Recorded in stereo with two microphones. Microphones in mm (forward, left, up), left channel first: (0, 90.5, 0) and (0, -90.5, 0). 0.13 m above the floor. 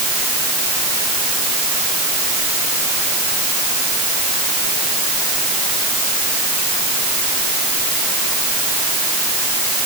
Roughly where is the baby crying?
I don't hear a baby crying.